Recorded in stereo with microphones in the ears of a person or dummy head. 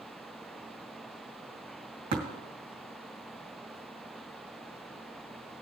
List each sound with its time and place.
2.1 s tapping: 50° right (ahead or behind), 2.5 m